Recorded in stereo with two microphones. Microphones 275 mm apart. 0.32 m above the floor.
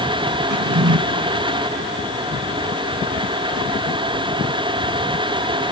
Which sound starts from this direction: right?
A drawer, at 0.5 s.